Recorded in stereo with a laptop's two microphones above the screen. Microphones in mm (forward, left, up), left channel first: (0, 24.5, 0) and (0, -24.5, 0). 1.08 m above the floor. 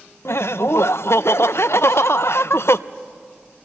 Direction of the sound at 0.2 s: 65° left (ahead or behind).